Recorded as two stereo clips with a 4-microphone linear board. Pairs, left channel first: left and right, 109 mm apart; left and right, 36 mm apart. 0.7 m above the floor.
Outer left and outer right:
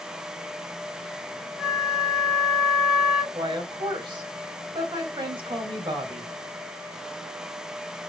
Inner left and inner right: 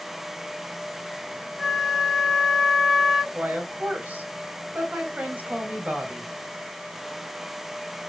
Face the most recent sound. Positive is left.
turn(degrees=-50)  # may be behind; listen again after turning